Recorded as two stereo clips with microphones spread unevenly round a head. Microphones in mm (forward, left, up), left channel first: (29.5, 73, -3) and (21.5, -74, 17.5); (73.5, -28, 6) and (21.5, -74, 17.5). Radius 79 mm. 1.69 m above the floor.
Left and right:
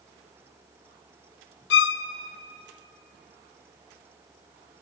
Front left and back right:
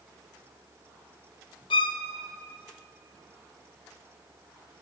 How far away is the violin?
About 0.9 m.